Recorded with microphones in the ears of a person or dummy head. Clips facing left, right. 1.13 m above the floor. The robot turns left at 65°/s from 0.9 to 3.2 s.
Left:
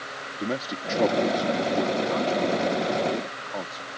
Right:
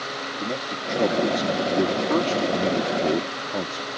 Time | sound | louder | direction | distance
0.4 | a man speaking | left 2 dB | 5° left | ?